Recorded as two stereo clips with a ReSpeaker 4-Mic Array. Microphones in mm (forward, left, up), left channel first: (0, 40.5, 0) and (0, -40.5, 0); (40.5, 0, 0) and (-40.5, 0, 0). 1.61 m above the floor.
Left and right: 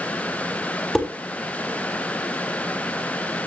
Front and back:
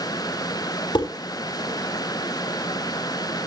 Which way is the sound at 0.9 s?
5° left.